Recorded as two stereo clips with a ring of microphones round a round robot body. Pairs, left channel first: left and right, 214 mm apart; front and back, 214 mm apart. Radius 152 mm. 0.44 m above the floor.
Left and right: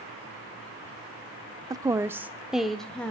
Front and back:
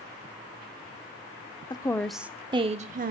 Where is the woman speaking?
40° right, 0.7 m; by 3.1 s 170° left, 0.9 m.